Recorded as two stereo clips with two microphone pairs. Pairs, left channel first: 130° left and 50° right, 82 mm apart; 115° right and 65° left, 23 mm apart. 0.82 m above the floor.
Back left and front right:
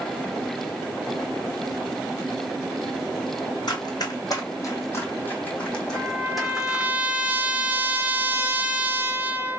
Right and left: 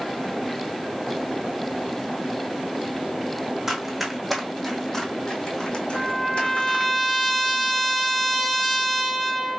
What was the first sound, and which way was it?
Running footsteps, 140° left.